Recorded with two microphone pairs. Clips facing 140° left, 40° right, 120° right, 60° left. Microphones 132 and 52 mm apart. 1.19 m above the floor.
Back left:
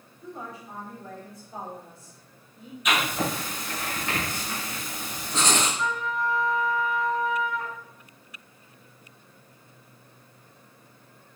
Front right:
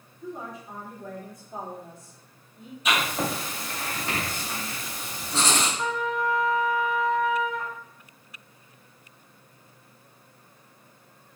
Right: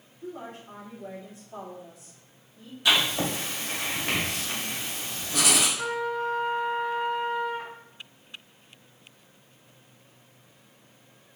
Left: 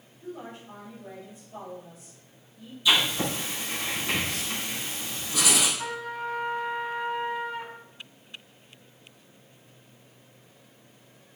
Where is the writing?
100° right, 2.5 m.